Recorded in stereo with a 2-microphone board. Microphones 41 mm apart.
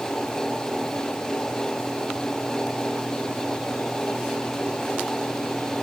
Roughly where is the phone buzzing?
No phone buzzing in this recording.